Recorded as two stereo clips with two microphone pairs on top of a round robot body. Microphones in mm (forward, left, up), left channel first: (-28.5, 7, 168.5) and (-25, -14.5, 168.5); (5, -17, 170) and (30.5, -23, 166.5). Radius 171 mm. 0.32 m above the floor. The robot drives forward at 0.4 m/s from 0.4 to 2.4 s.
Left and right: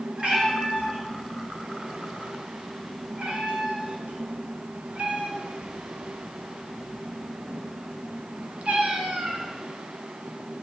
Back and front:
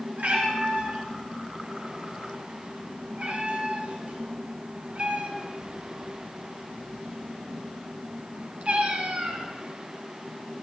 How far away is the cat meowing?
About 2 m.